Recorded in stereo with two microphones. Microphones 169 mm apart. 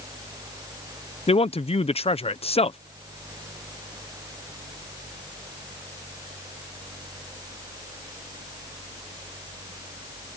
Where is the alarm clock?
I don't hear an alarm clock.